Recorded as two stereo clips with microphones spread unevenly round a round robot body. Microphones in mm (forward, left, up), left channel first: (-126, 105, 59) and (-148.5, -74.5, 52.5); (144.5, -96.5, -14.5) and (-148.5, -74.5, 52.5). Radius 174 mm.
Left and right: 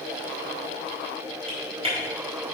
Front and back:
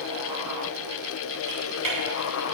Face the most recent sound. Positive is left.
turn(degrees=-155)